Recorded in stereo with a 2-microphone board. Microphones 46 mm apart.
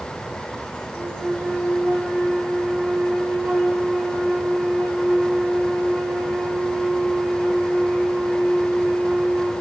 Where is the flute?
50° right (ahead or behind), 2 m.